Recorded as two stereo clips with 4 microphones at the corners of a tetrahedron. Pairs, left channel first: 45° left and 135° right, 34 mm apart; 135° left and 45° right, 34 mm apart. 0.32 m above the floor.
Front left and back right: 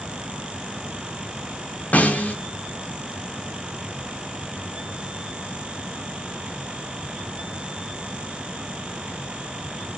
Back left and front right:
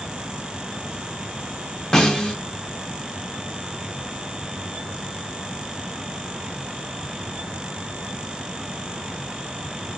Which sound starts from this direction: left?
A snare drum, at 1.9 s.